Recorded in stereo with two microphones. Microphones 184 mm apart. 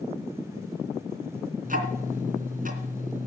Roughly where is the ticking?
Right.